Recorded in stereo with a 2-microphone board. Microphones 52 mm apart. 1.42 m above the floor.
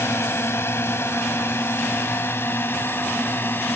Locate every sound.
0.0 s a drone: 55° left (ahead or behind); by 3.8 s 45° left (ahead or behind)